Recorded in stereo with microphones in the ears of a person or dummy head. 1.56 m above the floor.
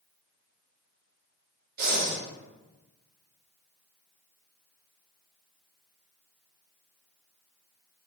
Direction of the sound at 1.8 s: 45° right (ahead or behind).